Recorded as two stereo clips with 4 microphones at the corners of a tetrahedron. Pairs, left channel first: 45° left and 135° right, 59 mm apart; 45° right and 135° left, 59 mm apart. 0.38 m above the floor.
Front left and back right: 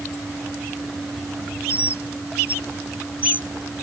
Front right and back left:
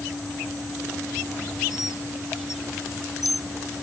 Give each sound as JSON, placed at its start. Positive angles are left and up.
{"t": 1.7, "sound": "a bird", "azimuth_deg": -70}